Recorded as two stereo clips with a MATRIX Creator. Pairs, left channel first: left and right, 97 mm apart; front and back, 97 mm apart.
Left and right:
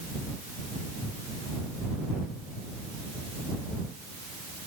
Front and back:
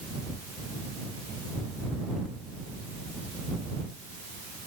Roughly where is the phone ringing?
I don't hear a phone ringing.